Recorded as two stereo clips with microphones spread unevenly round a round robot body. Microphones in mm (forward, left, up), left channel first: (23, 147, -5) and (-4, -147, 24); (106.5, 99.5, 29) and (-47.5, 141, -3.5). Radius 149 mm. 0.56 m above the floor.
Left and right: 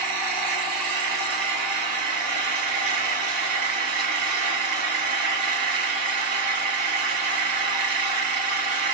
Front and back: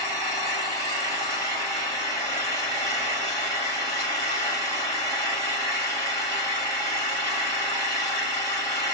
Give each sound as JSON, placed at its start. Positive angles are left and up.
{"t": 0.0, "sound": "an engine running", "azimuth_deg": -85, "distance_m": 1.5}